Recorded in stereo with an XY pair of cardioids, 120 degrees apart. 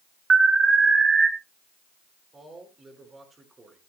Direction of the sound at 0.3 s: 25° right.